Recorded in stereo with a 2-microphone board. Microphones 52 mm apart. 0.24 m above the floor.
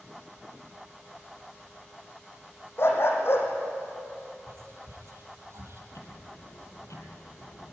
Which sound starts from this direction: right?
Whispering, at 4.5 s.